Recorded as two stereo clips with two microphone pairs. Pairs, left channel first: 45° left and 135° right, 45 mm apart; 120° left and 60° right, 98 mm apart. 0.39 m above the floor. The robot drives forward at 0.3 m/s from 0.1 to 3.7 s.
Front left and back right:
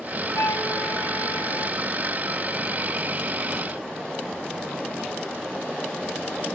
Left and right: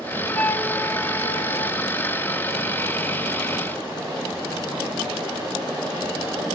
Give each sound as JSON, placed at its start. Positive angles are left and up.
{"t": 0.3, "sound": "a flute", "azimuth_deg": 55, "distance_m": 1.1}